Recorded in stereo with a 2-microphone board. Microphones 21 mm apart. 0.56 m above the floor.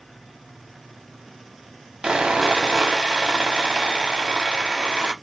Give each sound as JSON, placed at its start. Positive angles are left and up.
{"t": 2.0, "sound": "sawing", "side_deg": -55, "distance_m": 0.7}